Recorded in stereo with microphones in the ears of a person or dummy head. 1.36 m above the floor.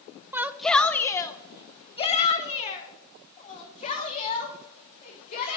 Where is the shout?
10° right (ahead or behind), 0.6 m; by 5.6 s 40° left (ahead or behind), 3.5 m.